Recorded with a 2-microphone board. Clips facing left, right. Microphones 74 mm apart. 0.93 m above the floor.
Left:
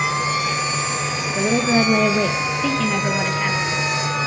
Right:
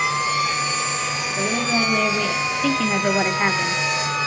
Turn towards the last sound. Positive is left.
turn(degrees=-50)  # may be behind; listen again after turning